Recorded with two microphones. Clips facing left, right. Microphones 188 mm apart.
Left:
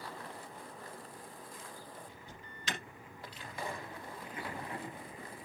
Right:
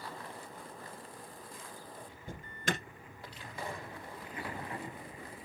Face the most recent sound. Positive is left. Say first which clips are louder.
# right 8 dB
turn(degrees=-55)  # may be behind; listen again after turning